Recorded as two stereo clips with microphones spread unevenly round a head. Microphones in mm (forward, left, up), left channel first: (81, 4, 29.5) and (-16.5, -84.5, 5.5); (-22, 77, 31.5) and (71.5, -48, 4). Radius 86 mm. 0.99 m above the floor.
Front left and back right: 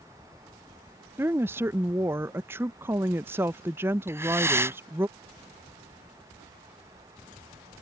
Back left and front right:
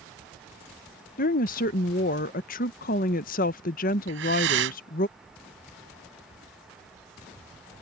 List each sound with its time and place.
1.2 s a woman speaking: 160° left
4.1 s breathing: 65° right